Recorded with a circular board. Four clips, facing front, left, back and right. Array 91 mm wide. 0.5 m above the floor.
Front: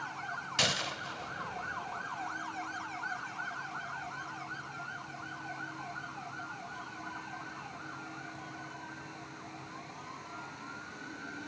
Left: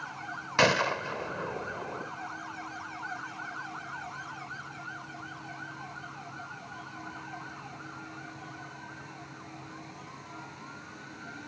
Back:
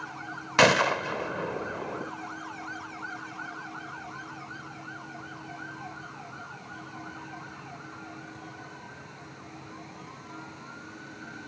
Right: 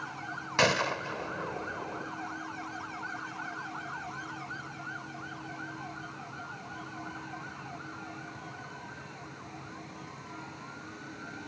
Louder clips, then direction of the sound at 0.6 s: Left 2 dB, back 16 dB; 170° left.